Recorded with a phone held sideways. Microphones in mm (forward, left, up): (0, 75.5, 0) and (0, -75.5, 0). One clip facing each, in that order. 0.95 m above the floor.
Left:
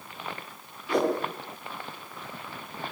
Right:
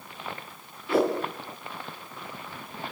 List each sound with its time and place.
0.9 s a whoosh: 5° right (ahead or behind), 10 m